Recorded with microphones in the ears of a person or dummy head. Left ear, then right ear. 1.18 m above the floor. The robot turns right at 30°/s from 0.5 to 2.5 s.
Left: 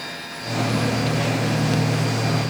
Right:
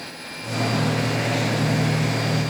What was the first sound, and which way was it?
Only background noise.